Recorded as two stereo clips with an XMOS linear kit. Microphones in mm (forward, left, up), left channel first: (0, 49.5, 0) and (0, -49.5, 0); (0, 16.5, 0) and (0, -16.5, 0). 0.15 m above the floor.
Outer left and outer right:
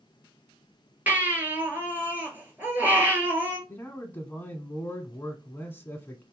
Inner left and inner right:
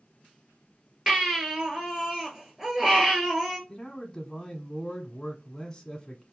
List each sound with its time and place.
1.1 s a baby crying: 20° right (ahead or behind), 1.5 m
3.7 s a man speaking: 20° left (ahead or behind), 1.2 m